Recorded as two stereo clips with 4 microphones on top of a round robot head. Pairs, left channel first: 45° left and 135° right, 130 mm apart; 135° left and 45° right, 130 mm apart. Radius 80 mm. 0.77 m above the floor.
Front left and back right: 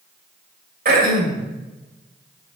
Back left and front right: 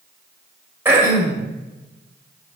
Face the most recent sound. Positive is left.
turn(degrees=-115)